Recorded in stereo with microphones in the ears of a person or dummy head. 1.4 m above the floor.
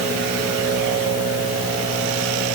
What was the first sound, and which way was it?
Only background noise.